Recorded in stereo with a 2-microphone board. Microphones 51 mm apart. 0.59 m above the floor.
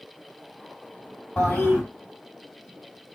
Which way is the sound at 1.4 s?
30° left (ahead or behind).